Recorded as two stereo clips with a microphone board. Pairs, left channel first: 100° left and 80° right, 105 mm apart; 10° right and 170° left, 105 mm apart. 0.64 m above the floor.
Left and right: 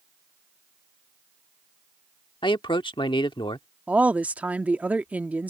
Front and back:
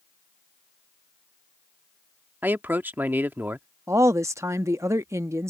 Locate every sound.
2.4 s a man speaking: 105° left
3.9 s a woman speaking: 145° right